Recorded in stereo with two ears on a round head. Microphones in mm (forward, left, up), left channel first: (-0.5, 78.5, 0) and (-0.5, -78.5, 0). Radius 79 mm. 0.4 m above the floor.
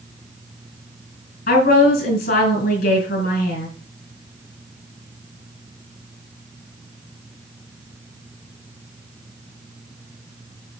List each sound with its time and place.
1.5 s a woman speaking: 55° left (ahead or behind), 5 m